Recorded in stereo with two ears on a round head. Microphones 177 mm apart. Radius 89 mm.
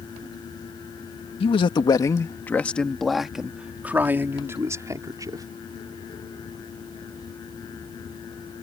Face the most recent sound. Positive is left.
turn(degrees=-20)  # may be behind; listen again after turning